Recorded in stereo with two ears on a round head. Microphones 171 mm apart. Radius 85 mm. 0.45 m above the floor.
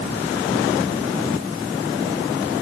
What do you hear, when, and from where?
Only background noise.